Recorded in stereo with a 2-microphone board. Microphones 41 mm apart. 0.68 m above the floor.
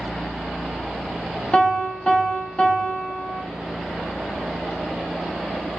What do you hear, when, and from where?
1.5 s a piano: 30° left (ahead or behind), 0.8 m